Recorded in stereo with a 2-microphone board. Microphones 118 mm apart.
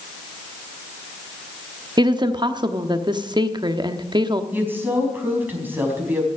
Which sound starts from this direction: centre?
A woman speaking, at 4.5 s.